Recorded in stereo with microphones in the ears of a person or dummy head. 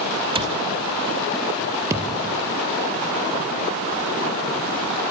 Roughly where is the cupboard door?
Right.